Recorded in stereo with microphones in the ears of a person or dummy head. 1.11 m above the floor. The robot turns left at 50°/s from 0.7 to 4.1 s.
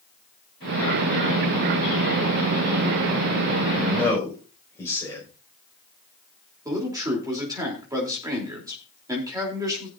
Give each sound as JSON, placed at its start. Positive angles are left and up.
{"t": 3.8, "sound": "a man speaking", "side_deg": 5, "distance_m": 5.5}
{"t": 6.7, "sound": "a man speaking", "side_deg": -15, "distance_m": 3.0}